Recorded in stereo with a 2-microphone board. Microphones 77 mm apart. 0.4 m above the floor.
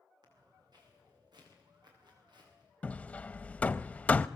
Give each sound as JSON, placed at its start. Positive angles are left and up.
{"t": 0.2, "sound": "footsteps", "side_deg": -60, "distance_m": 9.0}
{"t": 2.8, "sound": "hammering", "side_deg": 20, "distance_m": 0.5}